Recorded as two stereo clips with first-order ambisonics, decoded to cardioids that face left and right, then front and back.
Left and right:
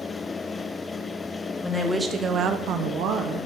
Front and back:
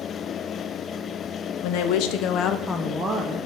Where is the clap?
No clap in this recording.